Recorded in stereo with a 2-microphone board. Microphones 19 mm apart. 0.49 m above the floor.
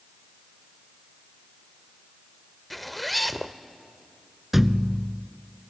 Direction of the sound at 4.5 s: 10° right (ahead or behind).